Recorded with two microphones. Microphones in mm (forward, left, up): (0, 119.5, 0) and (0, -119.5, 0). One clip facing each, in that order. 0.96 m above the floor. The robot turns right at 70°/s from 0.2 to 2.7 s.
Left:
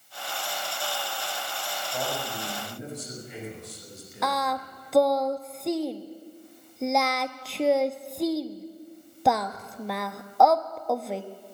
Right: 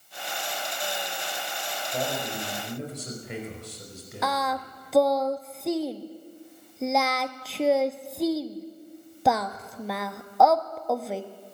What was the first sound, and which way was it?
A man speaking, 160° right.